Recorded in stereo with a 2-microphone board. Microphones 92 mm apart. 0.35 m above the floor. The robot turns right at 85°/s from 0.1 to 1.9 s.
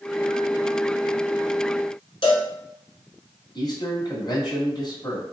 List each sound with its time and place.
2.2 s a cowbell: 60° left (ahead or behind), 1.2 m
3.5 s a man speaking: 50° left (ahead or behind), 1.8 m